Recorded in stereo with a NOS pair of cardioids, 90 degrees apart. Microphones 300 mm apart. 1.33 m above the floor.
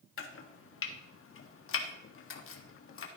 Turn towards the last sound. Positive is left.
turn(degrees=45)